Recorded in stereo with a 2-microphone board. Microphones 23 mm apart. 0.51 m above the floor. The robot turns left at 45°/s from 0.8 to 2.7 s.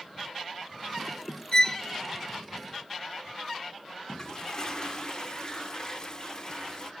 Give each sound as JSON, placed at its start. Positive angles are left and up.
{"t": 1.5, "sound": "a violin", "side_deg": 40, "distance_m": 0.8}
{"t": 4.1, "sound": "a toilet flushing", "side_deg": 40, "distance_m": 0.7}